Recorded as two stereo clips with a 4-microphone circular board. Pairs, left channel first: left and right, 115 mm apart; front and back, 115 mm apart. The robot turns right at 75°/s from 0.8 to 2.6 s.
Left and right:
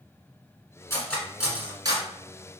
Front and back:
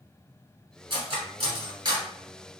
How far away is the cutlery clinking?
About 1.3 m.